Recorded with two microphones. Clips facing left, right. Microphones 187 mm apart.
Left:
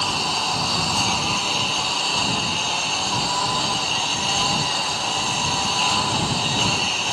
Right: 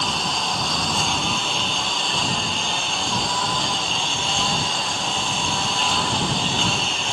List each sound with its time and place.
0.0 s a lawn mower: centre (ahead or behind)